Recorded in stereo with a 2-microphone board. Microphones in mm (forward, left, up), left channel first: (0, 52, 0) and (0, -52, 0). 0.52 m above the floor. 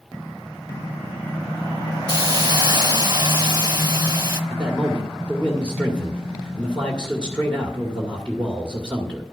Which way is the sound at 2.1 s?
35° right (ahead or behind).